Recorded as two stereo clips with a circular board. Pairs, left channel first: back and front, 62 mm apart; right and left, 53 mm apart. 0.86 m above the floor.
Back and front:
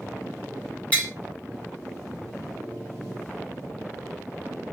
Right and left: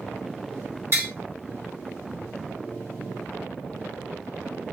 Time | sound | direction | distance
0.9 | tapping | 120° left | 1.7 m